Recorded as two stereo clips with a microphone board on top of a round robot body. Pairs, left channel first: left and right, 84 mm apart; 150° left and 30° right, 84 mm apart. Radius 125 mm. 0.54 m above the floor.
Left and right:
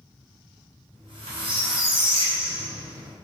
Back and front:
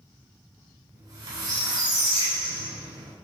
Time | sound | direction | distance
0.9 | a squeak | 75° right | 1.1 m